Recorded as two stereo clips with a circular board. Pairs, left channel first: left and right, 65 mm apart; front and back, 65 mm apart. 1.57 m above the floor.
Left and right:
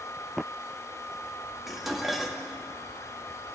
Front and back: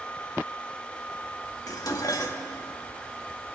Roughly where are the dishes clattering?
Ahead.